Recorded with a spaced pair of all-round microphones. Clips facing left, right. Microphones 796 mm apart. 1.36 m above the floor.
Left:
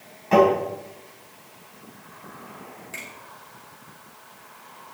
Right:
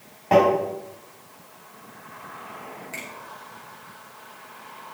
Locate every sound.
0.3 s tapping: 80° right, 6.5 m
2.9 s a finger snap: 55° right (ahead or behind), 4.5 m